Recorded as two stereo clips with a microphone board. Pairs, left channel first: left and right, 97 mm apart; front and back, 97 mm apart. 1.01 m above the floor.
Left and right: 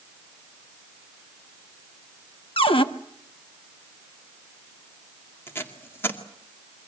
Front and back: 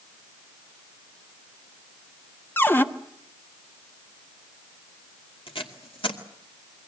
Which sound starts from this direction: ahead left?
Tape being pulled, at 5.5 s.